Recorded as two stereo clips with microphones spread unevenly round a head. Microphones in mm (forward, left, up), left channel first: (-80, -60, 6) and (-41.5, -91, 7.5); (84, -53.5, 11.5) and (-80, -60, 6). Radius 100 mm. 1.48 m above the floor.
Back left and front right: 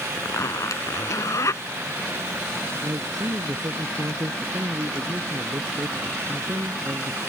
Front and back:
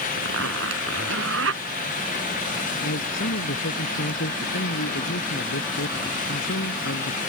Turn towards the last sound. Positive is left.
turn(degrees=10)